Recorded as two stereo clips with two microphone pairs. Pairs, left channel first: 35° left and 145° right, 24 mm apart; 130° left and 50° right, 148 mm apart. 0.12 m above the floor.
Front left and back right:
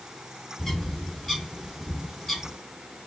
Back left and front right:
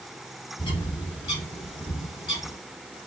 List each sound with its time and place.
0.6 s a bird: 95° left, 2 m